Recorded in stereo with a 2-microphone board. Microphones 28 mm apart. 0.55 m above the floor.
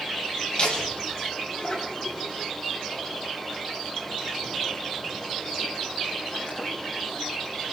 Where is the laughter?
40° left (ahead or behind), 5 m; by 7.2 s 45° left (ahead or behind), 12.5 m.